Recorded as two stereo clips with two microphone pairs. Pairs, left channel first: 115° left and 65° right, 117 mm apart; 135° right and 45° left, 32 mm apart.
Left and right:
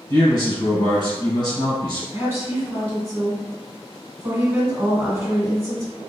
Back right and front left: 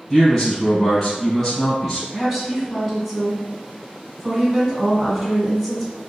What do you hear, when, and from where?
0.1 s a man speaking: 140° left, 2.0 m
2.1 s a woman speaking: 40° right, 1.2 m